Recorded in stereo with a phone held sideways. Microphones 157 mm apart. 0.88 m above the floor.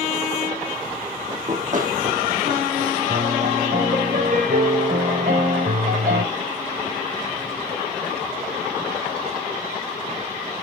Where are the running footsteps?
50° right (ahead or behind), 3 m; by 3.0 s 70° right (ahead or behind), 2.5 m.